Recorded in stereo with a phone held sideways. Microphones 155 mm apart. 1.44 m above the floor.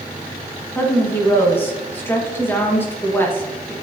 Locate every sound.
0.8 s a woman speaking: 15° left (ahead or behind), 1.7 m